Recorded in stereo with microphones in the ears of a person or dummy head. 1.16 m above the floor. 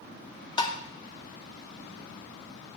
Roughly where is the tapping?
Left.